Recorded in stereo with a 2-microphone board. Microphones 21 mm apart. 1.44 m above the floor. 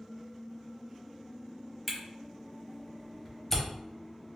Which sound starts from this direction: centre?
A camera shutter, at 1.9 s.